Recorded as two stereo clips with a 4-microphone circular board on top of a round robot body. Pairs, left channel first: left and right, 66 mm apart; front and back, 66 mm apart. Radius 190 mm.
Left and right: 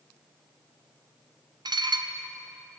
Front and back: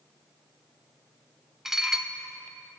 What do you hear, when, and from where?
1.6 s dishes clattering: 95° right, 1.2 m